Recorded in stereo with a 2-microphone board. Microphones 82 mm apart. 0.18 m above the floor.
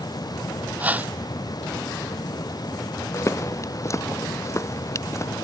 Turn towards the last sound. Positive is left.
turn(degrees=40)  # may be behind; listen again after turning